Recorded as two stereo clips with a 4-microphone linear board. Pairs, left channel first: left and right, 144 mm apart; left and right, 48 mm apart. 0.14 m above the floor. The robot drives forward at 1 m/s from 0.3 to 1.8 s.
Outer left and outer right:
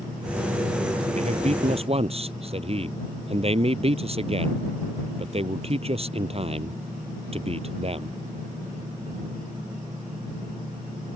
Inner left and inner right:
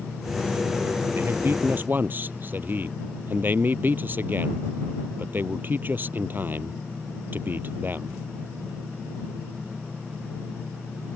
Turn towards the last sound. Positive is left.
turn(degrees=-40)  # may be behind; listen again after turning